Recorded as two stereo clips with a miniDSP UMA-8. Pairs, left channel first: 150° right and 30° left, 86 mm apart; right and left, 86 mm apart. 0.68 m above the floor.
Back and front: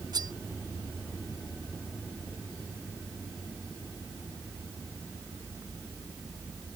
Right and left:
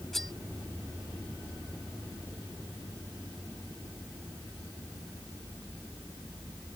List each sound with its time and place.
0.1 s cutlery clinking: 5° right